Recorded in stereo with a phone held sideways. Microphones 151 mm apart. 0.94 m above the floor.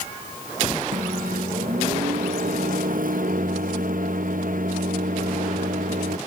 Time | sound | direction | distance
0.9 | a microwave | 65° right (ahead or behind) | ?